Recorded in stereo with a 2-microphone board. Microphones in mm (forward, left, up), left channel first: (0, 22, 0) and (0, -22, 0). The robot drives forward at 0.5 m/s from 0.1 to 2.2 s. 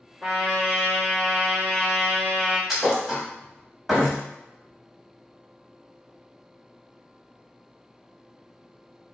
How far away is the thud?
About 0.9 m.